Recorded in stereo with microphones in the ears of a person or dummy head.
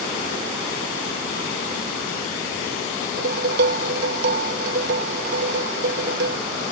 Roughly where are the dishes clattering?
Right.